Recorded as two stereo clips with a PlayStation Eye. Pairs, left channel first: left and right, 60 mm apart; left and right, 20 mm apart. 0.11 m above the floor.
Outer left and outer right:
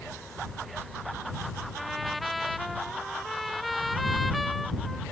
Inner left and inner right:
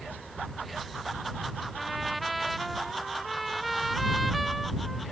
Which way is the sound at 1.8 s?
Centre (ahead or behind).